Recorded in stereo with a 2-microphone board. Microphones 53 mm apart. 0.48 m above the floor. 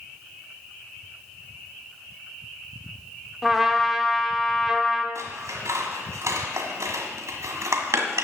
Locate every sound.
3.4 s a trumpet: 5° right (ahead or behind), 1.1 m
5.2 s scissors: 75° right (ahead or behind), 1.5 m